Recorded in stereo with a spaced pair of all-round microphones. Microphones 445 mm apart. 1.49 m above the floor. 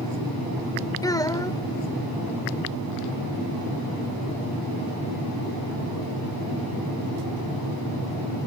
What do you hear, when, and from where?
1.0 s a child speaking: 10° left (ahead or behind)